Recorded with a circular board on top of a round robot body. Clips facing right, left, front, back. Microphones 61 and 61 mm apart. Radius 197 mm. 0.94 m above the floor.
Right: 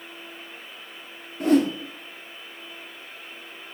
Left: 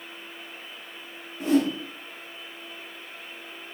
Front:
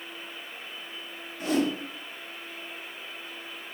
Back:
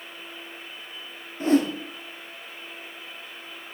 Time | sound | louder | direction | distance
1.4 | a whoosh | right 3 dB, back 5 dB | 120° right | 1.8 m